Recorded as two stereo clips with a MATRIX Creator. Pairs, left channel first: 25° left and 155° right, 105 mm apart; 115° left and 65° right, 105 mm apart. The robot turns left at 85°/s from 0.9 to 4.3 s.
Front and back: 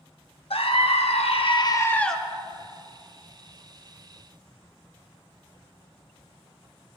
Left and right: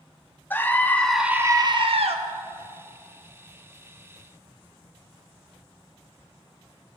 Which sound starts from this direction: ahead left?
A scream, at 0.5 s.